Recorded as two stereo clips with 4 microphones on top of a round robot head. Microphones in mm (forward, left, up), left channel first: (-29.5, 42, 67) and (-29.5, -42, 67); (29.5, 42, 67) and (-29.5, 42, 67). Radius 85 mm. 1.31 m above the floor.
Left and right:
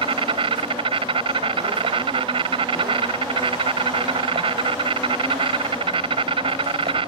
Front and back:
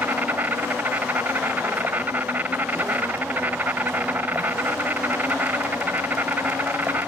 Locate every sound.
0.0 s an insect: 105° right